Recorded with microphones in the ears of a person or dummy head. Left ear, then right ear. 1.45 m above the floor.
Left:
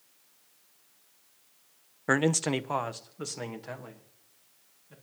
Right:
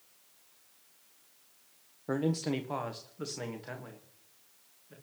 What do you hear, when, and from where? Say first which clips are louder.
2.1 s a man speaking: left 7 dB; 60° left (ahead or behind), 0.5 m; by 4.9 s 10° left (ahead or behind), 2.5 m